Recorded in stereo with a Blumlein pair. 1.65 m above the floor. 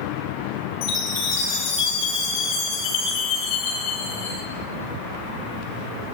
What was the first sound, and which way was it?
A chime, 45° left.